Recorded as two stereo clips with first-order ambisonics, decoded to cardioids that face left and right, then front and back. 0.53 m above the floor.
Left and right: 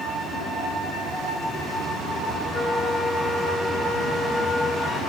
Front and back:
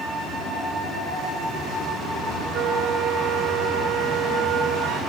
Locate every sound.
2.5 s a flute: 175° left